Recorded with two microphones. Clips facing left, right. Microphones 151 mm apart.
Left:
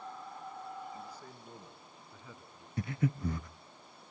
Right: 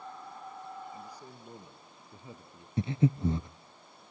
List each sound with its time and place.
0.9 s a man speaking: 10° right (ahead or behind), 2.5 m; by 2.7 s 35° right (ahead or behind), 1.6 m
2.8 s breathing: 25° right (ahead or behind), 0.5 m